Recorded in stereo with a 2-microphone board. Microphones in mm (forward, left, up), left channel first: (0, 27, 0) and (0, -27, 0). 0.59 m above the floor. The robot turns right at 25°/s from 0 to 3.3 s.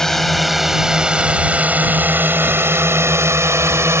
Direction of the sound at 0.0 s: 5° left (ahead or behind).